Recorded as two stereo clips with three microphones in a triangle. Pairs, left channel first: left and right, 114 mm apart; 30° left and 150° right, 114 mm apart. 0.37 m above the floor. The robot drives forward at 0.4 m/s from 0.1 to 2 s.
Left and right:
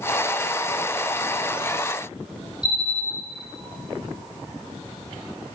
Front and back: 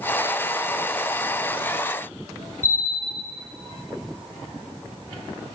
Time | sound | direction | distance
2.6 | a bell | 40° left | 4.5 m